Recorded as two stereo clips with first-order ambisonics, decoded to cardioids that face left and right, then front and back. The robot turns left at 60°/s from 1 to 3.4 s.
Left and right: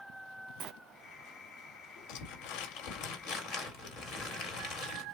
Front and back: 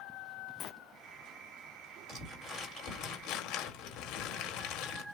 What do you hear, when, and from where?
0.6 s a sliding door: 55° right, 0.6 m
2.1 s crumpling: 110° left, 3 m; by 5.0 s 30° left, 3 m